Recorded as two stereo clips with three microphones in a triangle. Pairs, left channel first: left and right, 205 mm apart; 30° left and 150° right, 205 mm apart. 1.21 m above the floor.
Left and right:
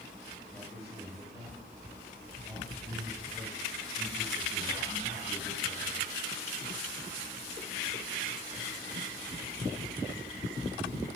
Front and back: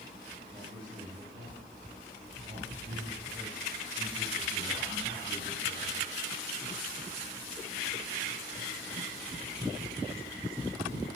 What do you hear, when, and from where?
0.5 s a man speaking: 150° left, 3 m; by 6.1 s 160° right, 5 m